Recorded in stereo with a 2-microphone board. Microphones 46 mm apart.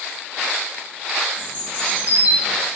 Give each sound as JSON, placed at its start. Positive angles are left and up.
{"t": 1.4, "sound": "a bird", "side_deg": -30, "distance_m": 1.6}